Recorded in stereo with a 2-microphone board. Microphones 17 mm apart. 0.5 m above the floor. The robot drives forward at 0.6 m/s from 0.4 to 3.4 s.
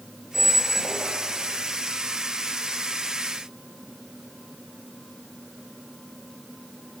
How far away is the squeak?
About 2 m.